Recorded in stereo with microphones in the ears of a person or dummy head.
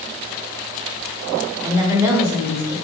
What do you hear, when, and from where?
1.6 s a woman speaking: 15° right (ahead or behind), 0.6 m